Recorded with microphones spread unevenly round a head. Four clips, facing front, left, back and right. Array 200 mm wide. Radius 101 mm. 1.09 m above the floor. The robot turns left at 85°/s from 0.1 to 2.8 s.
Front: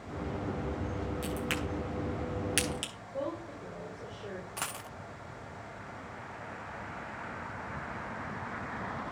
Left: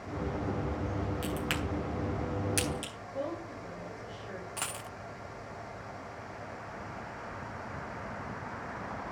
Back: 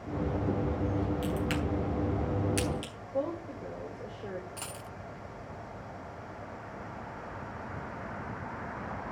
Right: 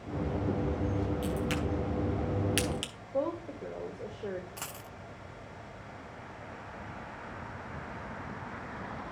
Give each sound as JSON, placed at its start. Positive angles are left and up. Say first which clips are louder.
{"t": 1.2, "sound": "a crack", "louder": "right 2 dB, back 3 dB", "azimuth_deg": 90, "distance_m": 9.0}
{"t": 3.1, "sound": "a woman speaking", "louder": "right 5 dB, back 4 dB", "azimuth_deg": -110, "distance_m": 3.0}
{"t": 4.6, "sound": "a dropped coin", "louder": "left 4 dB, front 2 dB", "azimuth_deg": 35, "distance_m": 0.6}